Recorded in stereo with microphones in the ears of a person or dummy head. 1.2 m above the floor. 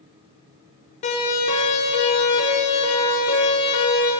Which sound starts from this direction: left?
A siren, at 1.0 s.